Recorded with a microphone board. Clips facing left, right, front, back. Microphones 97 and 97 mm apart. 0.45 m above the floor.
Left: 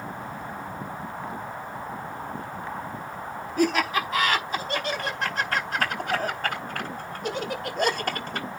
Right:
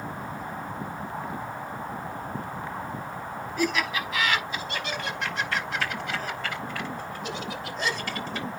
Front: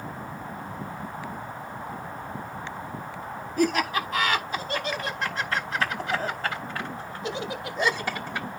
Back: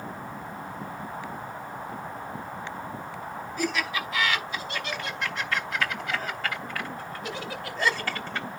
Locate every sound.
3.6 s laughter: 40° left, 4.5 m; by 8.6 s 80° left, 2 m